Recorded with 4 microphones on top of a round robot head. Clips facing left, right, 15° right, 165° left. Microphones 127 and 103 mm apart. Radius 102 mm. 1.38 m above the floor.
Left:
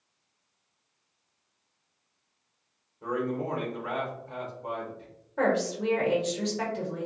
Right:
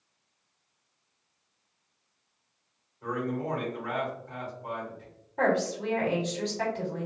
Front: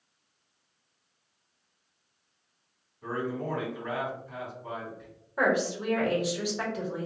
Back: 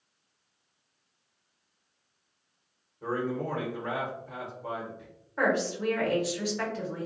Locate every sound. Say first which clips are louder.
3.0 s a man speaking: left 1 dB, back 2 dB; 150° left, 1.0 m
5.4 s a woman speaking: even, front 1 dB; 60° left, 1.2 m